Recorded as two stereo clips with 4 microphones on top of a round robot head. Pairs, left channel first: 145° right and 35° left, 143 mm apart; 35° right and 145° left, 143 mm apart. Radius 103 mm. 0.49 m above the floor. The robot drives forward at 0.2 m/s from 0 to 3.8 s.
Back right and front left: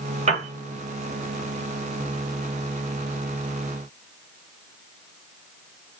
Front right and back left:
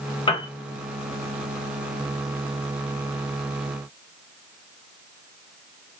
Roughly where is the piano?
Ahead.